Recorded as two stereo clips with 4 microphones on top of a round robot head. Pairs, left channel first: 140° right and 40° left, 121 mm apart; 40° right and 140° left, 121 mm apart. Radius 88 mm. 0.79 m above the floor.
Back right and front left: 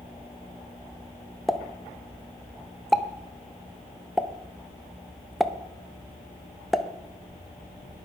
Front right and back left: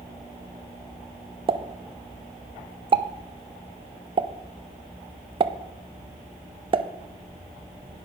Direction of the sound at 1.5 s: 130° left.